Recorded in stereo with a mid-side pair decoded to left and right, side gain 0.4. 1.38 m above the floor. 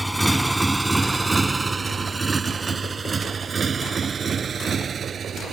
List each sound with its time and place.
0.0 s a motorcycle: 5° right; by 5.5 s 55° right